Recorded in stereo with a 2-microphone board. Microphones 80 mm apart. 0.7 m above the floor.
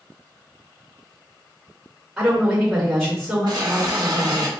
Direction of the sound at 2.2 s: Centre (ahead or behind).